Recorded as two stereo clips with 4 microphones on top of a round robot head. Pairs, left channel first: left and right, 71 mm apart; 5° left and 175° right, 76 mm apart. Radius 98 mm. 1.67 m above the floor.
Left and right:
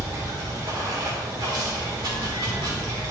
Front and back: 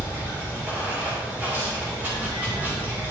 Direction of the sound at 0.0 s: 110° right.